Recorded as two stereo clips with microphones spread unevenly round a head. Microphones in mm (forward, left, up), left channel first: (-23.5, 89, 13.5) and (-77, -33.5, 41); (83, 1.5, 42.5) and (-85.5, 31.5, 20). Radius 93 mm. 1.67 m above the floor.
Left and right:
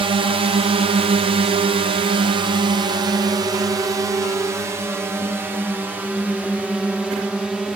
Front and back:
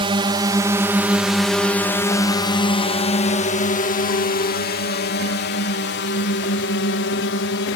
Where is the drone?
155° right; by 7.8 s 25° right.